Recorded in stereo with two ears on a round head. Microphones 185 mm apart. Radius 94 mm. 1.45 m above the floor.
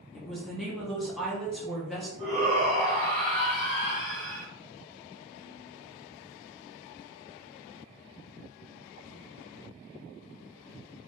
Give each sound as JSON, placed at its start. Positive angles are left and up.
{"t": 0.1, "sound": "a woman speaking", "side_deg": 0, "distance_m": 0.7}
{"t": 2.2, "sound": "a shout", "side_deg": 5, "distance_m": 1.2}